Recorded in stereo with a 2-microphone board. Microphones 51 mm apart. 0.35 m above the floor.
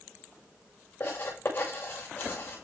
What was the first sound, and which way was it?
Writing, 50° left (ahead or behind).